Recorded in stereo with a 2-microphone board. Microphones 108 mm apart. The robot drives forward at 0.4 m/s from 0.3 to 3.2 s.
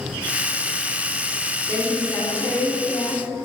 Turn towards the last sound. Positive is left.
turn(degrees=25)  # may be behind; listen again after turning